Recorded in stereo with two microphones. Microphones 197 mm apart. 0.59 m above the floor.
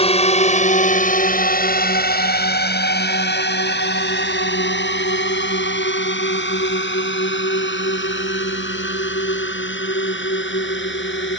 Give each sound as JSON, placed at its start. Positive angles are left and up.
{"t": 0.0, "sound": "a drone", "side_deg": 30}